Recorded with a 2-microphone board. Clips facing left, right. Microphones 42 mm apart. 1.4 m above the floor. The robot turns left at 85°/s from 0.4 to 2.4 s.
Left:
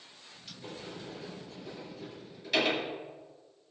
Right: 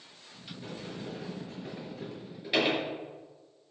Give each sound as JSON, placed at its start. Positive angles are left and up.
{"t": 0.6, "sound": "a sliding door", "side_deg": -15, "distance_m": 6.0}